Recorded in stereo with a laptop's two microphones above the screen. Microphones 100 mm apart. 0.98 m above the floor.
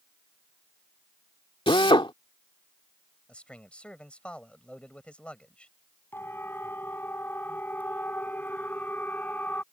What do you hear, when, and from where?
1.7 s a drill: 60° left (ahead or behind)
3.3 s a man speaking: 10° left (ahead or behind)
6.1 s a siren: 20° left (ahead or behind); by 9.6 s 15° left (ahead or behind)